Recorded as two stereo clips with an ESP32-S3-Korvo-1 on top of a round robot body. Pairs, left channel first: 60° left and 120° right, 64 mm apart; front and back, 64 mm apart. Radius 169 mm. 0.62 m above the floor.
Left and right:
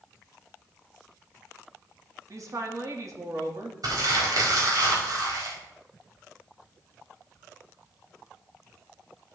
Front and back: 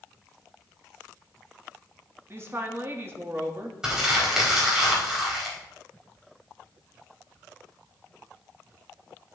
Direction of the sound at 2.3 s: 135° right.